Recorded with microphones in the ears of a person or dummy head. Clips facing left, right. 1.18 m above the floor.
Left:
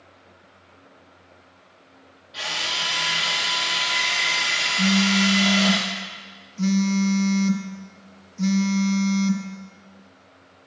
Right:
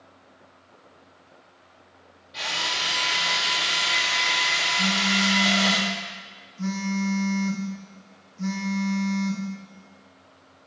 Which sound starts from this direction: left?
A phone buzzing, at 4.8 s.